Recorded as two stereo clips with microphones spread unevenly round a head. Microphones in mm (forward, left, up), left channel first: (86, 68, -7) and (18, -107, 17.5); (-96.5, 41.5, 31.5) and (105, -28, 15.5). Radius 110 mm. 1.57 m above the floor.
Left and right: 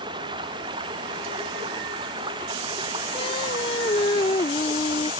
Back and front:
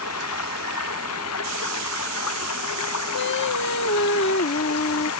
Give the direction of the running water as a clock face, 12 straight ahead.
6 o'clock.